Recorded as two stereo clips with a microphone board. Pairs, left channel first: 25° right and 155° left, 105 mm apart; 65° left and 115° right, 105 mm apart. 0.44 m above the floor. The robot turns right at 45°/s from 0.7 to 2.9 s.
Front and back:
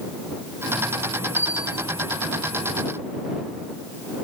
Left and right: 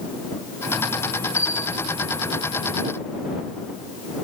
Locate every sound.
1.4 s a bell: 135° right; by 1.9 s 110° right